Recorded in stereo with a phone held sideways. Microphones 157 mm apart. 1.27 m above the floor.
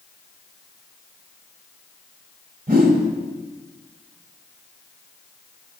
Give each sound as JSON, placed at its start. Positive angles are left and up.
{"t": 2.7, "sound": "a whoosh", "side_deg": -65, "distance_m": 1.9}